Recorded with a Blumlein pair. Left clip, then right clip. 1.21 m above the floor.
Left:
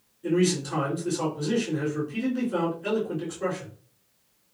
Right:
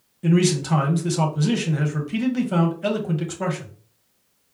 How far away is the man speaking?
About 1.2 m.